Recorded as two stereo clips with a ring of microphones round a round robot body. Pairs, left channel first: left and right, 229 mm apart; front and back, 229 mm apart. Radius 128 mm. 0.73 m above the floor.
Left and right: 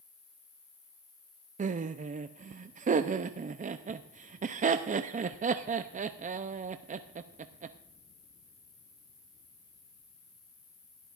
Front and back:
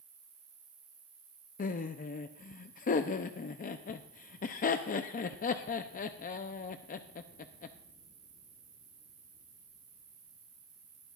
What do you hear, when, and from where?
0.0 s an insect: 135° left, 4.5 m
1.6 s laughter: 45° right, 0.6 m